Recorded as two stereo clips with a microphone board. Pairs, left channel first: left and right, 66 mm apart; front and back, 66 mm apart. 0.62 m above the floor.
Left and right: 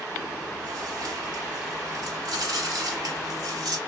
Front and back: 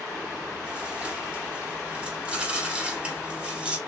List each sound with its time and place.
0.1 s chewing: 105° right, 1.2 m